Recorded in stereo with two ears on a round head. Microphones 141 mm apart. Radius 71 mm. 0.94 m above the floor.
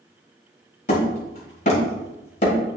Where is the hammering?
45° left (ahead or behind), 2 m.